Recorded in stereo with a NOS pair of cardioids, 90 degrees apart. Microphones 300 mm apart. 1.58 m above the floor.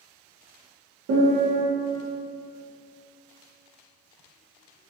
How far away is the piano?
About 0.8 m.